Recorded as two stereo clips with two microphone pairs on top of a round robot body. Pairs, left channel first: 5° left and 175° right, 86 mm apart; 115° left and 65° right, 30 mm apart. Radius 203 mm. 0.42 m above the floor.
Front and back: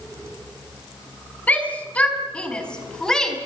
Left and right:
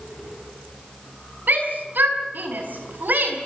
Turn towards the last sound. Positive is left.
turn(degrees=-75)